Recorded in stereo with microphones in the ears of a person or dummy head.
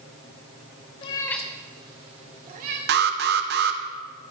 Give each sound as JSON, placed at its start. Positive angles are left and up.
{"t": 1.0, "sound": "a cat meowing", "side_deg": 25, "distance_m": 0.7}
{"t": 2.9, "sound": "an alarm", "side_deg": -45, "distance_m": 0.9}